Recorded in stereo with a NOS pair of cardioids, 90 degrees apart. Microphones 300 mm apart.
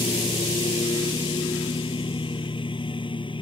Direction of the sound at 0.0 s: 15° left.